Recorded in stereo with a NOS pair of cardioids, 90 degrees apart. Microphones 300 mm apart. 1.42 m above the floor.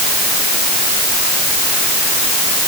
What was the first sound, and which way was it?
Only background noise.